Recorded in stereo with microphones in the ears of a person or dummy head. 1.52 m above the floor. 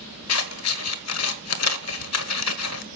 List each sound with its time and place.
0.3 s scissors: 85° left, 1.3 m